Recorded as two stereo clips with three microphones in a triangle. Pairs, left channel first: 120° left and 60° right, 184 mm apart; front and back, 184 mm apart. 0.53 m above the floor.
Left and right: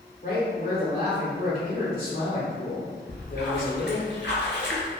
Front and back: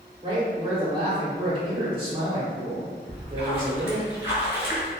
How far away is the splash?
About 1.8 m.